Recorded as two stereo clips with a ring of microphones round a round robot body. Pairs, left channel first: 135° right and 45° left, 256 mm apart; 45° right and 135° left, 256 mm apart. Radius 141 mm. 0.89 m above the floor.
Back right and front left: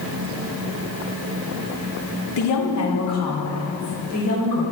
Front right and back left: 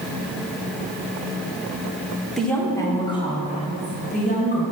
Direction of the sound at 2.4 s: 135° right.